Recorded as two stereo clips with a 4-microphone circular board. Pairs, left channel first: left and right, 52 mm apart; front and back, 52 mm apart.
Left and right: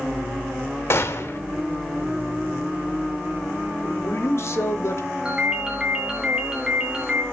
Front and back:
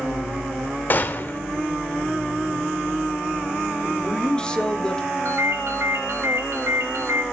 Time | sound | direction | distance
0.9 | a gunshot | 50° left | 1.0 m
3.8 | a man speaking | 75° left | 1.5 m
5.2 | a ringtone | 165° right | 2.5 m